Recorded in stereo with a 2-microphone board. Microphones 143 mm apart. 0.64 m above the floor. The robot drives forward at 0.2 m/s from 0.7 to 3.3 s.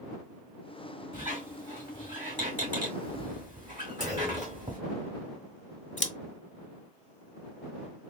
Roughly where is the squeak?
Right.